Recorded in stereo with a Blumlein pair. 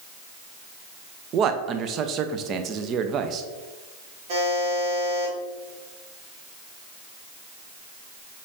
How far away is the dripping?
No dripping in this recording.